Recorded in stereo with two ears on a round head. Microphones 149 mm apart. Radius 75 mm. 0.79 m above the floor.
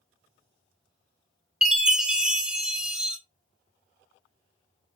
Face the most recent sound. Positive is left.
turn(degrees=-5)  # may be behind; listen again after turning